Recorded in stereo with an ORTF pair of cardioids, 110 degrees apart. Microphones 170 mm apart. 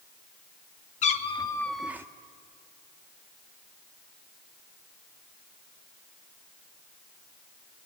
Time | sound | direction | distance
1.0 | a cat meowing | 45° left | 1.4 m